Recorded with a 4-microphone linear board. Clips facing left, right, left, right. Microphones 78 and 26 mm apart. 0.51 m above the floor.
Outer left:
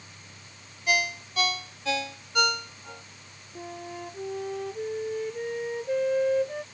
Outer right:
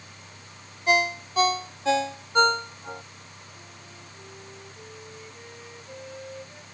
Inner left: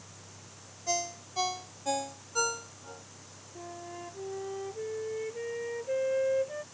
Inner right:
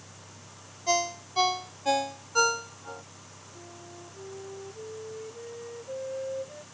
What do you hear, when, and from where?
0.9 s a ringtone: 35° right (ahead or behind)
3.5 s a flute: 65° left (ahead or behind)